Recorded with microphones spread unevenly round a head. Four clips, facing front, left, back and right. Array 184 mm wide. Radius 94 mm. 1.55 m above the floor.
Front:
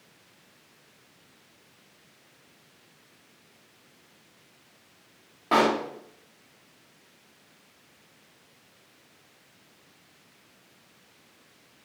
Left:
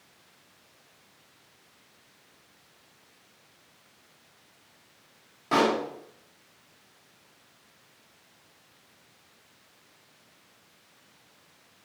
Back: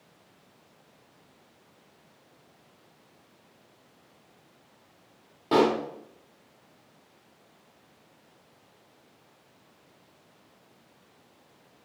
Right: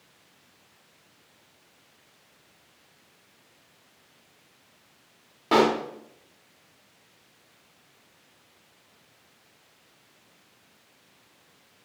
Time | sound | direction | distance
5.5 | a pop | 105° right | 1.1 m